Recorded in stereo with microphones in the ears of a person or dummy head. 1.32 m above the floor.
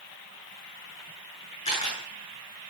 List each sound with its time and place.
1.6 s a camera shutter: 30° left (ahead or behind), 7.5 m